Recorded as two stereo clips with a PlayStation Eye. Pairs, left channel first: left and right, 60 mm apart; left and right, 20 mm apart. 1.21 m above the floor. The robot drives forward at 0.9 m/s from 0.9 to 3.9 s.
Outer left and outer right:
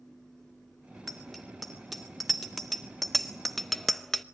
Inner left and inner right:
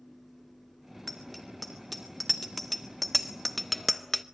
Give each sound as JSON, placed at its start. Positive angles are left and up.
{"t": 1.1, "sound": "a bicycle bell", "side_deg": 0, "distance_m": 3.0}